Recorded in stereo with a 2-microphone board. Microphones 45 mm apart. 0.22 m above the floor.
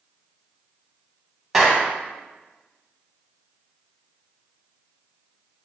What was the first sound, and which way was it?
A clap, 10° right (ahead or behind).